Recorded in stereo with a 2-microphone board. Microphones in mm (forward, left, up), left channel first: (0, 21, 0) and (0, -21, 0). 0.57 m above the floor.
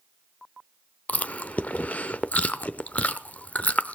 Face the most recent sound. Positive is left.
turn(degrees=35)  # may be behind; listen again after turning